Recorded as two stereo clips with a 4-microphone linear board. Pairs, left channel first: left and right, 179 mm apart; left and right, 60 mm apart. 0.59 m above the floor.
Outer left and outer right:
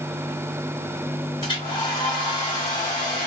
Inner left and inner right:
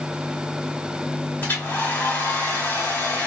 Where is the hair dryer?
30° left (ahead or behind), 1.6 m.